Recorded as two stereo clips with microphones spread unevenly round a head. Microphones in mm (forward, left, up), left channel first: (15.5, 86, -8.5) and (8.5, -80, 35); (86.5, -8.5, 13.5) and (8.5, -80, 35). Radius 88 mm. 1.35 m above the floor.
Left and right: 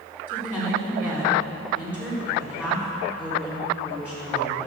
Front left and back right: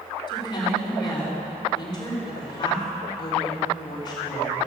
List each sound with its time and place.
0.3 s a woman speaking: 5° left, 5 m